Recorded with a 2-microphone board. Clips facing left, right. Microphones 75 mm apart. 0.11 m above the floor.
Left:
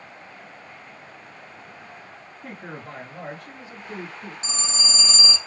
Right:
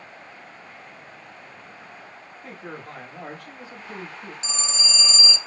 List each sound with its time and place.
2.4 s a man speaking: 40° left (ahead or behind), 1.9 m; by 4.3 s 10° left (ahead or behind), 2.0 m
4.4 s a phone ringing: 45° left (ahead or behind), 1.5 m